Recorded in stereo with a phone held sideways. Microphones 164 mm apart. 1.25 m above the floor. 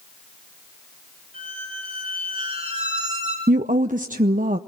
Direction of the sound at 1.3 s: 30° right (ahead or behind).